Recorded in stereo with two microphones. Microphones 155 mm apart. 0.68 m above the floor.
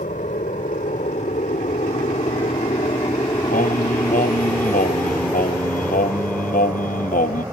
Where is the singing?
65° left (ahead or behind).